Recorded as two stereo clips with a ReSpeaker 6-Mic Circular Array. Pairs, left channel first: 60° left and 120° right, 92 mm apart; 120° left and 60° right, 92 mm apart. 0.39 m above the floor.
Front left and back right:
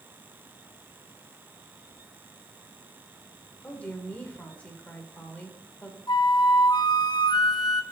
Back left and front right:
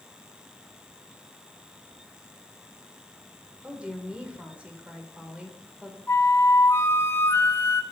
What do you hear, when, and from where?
3.6 s a woman speaking: 5° left, 1.5 m
6.1 s a flute: 65° left, 0.6 m